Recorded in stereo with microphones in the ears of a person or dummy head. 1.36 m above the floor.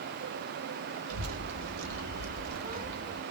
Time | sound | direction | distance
1.1 | a child speaking | 85° right | 1.4 m